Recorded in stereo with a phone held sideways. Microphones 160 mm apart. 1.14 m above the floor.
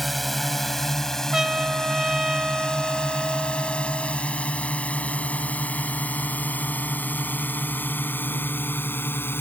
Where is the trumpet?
5° right (ahead or behind).